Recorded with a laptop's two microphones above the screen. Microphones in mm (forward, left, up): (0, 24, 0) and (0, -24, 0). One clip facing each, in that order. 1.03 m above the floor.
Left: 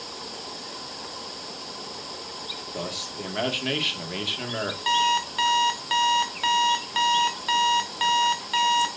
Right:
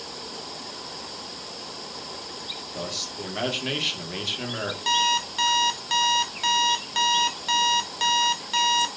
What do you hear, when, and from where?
2.7 s a man speaking: 10° left (ahead or behind), 2 m
4.9 s an alarm clock: 15° left (ahead or behind), 1.3 m